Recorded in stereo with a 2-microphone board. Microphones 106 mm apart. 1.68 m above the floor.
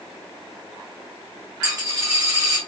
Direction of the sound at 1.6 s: 35° right (ahead or behind).